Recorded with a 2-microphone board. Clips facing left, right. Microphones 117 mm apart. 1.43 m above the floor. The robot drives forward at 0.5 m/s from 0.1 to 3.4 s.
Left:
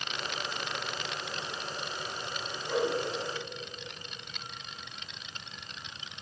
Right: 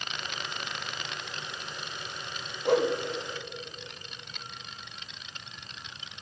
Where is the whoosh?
65° right (ahead or behind), 0.8 m; by 2.9 s 75° right (ahead or behind), 0.7 m.